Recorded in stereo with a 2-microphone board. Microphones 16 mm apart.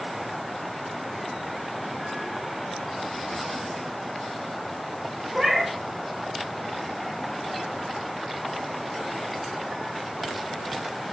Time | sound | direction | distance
5.3 | a cat meowing | 30° right (ahead or behind) | 1.4 m